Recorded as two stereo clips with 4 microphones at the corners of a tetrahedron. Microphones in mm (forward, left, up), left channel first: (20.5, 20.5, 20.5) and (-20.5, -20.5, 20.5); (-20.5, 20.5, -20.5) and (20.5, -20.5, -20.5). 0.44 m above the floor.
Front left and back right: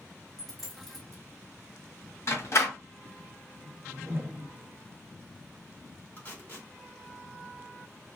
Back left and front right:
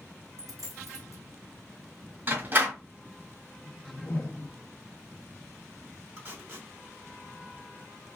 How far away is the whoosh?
About 1.0 m.